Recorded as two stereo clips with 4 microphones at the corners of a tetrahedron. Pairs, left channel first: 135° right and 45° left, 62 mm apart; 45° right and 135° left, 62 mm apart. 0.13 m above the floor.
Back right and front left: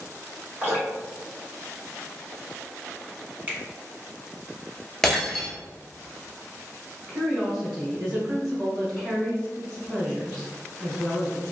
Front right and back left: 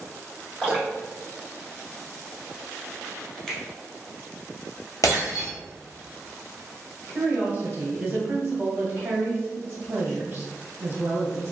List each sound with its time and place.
0.6 s dripping: 25° left, 1.6 m
3.5 s a finger snap: 25° left, 0.9 m
5.0 s breaking glass: 50° right, 1.1 m
7.1 s a woman speaking: 130° left, 1.1 m